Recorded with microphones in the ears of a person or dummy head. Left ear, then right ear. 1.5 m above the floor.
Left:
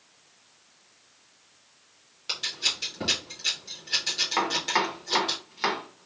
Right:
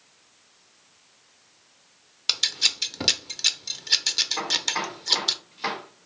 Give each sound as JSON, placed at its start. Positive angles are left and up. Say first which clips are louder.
{"t": 2.3, "sound": "scissors", "louder": "right 5 dB", "side_deg": -40, "distance_m": 0.5}
{"t": 4.4, "sound": "chopping", "louder": "left 1 dB", "side_deg": 40, "distance_m": 1.0}